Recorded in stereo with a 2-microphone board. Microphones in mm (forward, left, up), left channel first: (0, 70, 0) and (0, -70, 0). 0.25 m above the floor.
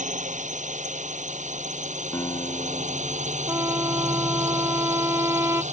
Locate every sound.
0.0 s a drone: 60° right (ahead or behind)
2.1 s a guitar: 25° left (ahead or behind)
3.5 s a trumpet: 20° right (ahead or behind)